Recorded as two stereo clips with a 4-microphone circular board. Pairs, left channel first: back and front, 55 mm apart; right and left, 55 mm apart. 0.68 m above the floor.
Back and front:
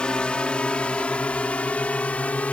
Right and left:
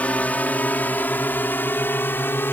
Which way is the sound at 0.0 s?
125° right.